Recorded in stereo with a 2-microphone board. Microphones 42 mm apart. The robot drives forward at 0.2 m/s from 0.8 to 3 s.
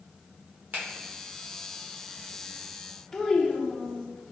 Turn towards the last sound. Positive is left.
turn(degrees=10)  # may be behind; listen again after turning